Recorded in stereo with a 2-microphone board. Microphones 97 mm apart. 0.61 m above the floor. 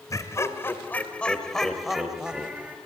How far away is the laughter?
About 3 m.